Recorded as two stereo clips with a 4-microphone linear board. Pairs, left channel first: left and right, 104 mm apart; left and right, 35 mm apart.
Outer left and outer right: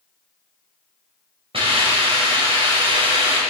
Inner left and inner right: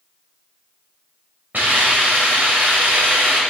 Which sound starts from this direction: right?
A hiss, at 1.5 s.